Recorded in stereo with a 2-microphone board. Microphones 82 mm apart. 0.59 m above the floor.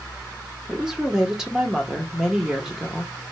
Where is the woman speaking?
10° right (ahead or behind), 0.8 m.